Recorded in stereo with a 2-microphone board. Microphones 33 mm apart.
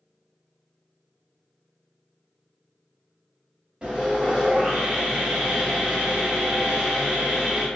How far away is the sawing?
About 1.3 m.